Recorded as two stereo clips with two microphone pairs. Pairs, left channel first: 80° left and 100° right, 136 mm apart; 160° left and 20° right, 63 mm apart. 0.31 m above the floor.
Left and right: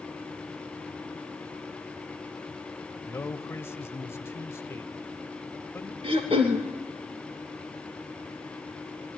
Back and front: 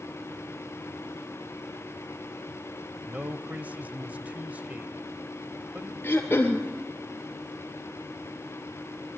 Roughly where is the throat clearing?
Behind right.